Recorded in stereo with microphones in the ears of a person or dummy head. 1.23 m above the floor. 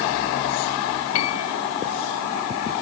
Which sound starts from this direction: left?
A piano, at 1.1 s.